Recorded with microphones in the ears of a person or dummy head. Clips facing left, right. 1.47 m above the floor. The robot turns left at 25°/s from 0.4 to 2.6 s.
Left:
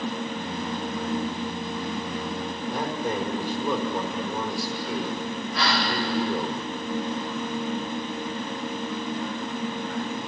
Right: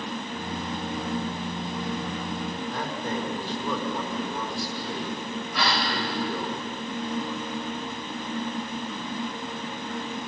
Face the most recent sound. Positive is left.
turn(degrees=-70)  # may be behind; listen again after turning